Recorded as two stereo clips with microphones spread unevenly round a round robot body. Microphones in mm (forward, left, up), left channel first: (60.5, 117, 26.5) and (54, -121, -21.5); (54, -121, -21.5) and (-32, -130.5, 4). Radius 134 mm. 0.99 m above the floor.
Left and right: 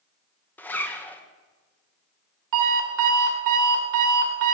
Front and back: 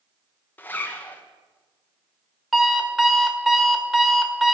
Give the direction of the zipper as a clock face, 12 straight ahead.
12 o'clock.